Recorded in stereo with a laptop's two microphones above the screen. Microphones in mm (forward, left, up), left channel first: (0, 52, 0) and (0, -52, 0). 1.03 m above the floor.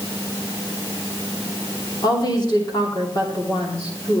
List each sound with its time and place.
2.0 s a woman speaking: 45° left (ahead or behind), 2.5 m